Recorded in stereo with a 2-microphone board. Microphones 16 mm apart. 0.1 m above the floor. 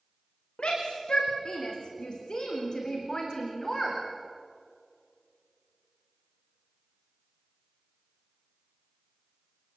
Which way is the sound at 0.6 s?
65° left (ahead or behind).